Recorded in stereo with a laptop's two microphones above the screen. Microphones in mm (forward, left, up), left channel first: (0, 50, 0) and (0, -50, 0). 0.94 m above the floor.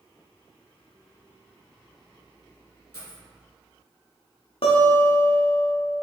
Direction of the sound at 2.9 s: 30° left (ahead or behind).